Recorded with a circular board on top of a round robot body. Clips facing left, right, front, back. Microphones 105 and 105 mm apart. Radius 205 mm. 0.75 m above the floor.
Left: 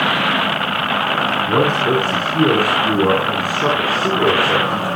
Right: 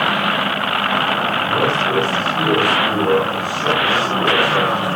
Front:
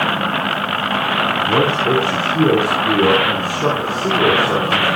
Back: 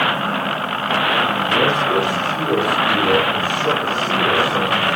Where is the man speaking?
50° left, 9 m; by 4.8 s 40° left, 10 m.